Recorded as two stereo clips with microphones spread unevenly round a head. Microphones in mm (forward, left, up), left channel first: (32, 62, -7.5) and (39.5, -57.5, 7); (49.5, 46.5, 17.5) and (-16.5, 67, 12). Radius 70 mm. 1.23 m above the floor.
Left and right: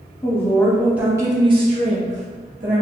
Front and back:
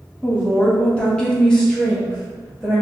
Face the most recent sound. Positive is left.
turn(degrees=-105)